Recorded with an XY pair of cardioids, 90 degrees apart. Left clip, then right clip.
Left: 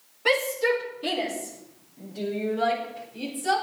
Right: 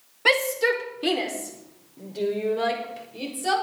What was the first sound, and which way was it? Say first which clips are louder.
A shout: right 2 dB; 55° right.